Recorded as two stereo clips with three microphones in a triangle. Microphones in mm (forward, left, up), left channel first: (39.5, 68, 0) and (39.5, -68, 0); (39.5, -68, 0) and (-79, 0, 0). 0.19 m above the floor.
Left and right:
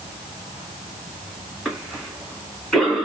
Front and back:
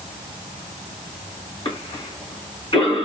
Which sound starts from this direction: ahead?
A cough, at 1.6 s.